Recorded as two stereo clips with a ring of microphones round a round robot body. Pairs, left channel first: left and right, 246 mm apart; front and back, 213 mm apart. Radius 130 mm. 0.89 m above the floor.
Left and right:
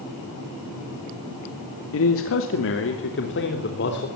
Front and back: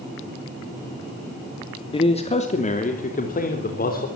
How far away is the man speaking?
About 2 m.